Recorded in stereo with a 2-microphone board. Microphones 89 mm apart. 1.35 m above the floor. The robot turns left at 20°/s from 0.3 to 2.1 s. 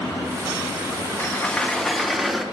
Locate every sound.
1.2 s a sliding door: 15° left (ahead or behind), 0.5 m; by 2.5 s centre (ahead or behind), 0.5 m